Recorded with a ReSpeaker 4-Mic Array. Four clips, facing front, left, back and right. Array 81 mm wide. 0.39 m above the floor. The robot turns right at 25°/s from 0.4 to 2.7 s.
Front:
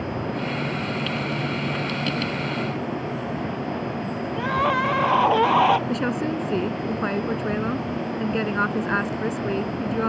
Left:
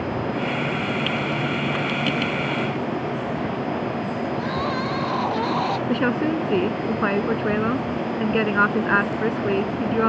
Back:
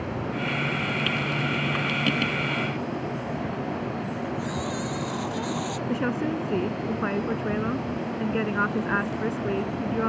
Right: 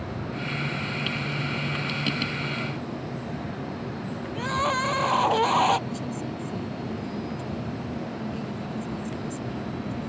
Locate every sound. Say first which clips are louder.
4.3 s crying: right 3 dB, front 8 dB; 10° right
5.9 s a woman speaking: left 11 dB, front 2 dB; 85° left